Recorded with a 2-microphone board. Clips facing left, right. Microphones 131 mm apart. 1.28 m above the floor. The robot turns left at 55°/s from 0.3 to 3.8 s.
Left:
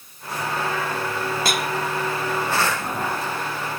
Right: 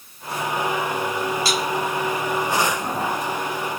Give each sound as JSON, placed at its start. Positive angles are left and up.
{"t": 1.4, "sound": "dishes clattering", "side_deg": 55}